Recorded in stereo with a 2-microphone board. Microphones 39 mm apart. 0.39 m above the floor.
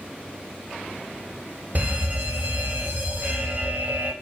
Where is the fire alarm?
45° right (ahead or behind), 3.5 m.